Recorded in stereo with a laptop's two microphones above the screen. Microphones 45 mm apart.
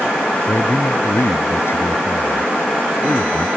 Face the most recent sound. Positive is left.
turn(degrees=65)  # may be behind; listen again after turning